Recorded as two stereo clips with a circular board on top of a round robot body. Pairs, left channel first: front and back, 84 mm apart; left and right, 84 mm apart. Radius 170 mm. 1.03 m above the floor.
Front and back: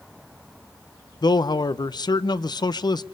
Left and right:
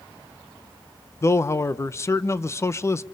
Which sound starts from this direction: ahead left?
A man speaking, at 1.2 s.